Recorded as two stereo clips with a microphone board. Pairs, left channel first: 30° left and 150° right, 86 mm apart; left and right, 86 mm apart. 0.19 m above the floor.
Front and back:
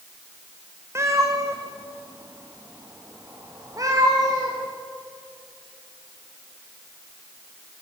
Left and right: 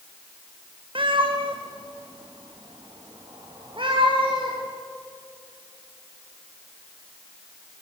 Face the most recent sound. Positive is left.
turn(degrees=-105)